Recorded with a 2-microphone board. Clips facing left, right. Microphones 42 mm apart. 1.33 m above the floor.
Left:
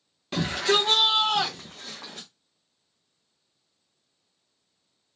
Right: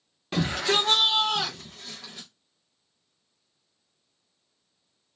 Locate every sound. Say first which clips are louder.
0.3 s a shout: left 1 dB; 5° right (ahead or behind), 0.9 m; by 2.3 s 70° left (ahead or behind), 0.7 m